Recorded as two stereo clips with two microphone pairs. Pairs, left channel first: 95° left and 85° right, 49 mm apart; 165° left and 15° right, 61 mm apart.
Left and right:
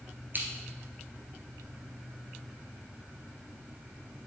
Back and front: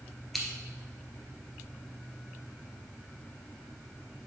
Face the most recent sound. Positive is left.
turn(degrees=-105)